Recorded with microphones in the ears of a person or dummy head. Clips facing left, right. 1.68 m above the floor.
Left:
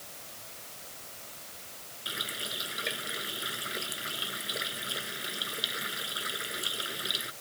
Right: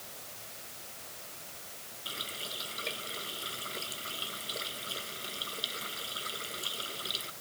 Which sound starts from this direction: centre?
A running tap, at 2.0 s.